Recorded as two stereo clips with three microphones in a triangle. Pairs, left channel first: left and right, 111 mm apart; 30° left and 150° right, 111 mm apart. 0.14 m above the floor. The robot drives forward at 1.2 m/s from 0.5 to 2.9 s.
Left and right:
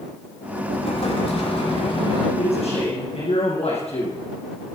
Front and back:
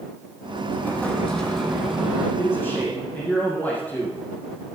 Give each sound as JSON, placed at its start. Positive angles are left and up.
{"t": 0.7, "sound": "an explosion", "azimuth_deg": 100, "distance_m": 3.5}
{"t": 2.4, "sound": "a man speaking", "azimuth_deg": 100, "distance_m": 5.5}